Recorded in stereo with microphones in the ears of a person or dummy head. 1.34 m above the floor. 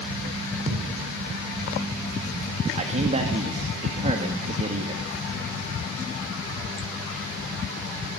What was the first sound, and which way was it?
A thud, 45° right (ahead or behind).